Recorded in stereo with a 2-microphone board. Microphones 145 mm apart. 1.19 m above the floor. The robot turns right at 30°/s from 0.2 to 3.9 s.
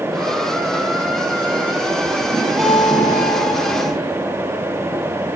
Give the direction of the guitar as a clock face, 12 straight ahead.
6 o'clock.